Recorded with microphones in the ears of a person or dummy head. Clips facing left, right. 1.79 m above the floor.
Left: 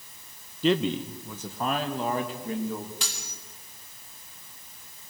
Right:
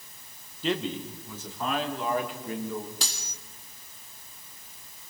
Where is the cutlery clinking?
35° right (ahead or behind), 2 m.